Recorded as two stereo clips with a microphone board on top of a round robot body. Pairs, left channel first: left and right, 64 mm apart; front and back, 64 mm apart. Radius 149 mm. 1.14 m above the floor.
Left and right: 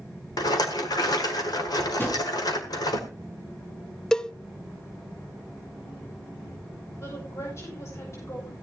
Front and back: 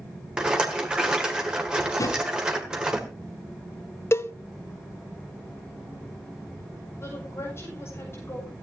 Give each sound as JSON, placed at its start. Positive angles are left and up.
{"t": 0.4, "sound": "a rattle", "azimuth_deg": 105, "distance_m": 1.7}
{"t": 2.0, "sound": "a drawer", "azimuth_deg": 35, "distance_m": 5.0}
{"t": 4.1, "sound": "a cowbell", "azimuth_deg": 15, "distance_m": 0.9}
{"t": 7.0, "sound": "a woman speaking", "azimuth_deg": 50, "distance_m": 8.0}